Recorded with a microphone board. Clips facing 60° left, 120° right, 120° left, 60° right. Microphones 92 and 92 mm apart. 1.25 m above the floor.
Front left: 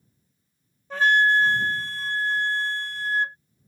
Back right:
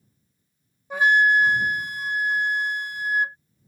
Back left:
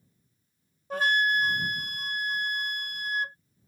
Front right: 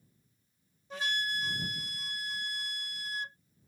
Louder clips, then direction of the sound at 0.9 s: Back right 1 dB, back left 10 dB; 160° left.